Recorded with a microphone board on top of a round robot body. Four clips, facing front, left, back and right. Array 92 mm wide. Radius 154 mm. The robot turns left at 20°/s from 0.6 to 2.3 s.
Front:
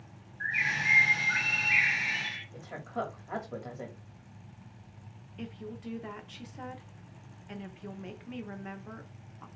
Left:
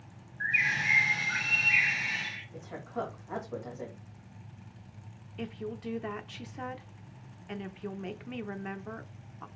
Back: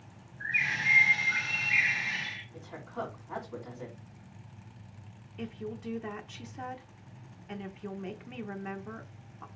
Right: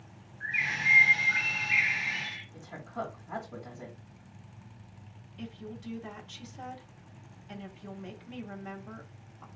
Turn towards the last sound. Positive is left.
turn(degrees=100)